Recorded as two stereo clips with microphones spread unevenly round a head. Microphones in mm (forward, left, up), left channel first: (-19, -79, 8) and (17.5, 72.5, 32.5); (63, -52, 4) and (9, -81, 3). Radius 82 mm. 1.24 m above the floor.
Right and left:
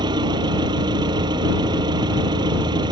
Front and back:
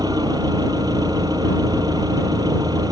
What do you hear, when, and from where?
0.0 s an engine running: 140° left